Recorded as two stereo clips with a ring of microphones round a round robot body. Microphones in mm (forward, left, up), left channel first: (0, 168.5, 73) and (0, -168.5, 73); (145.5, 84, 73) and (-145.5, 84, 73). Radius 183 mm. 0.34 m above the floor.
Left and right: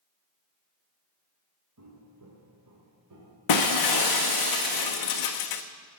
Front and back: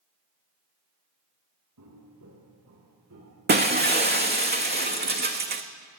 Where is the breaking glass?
120° left, 1.3 m.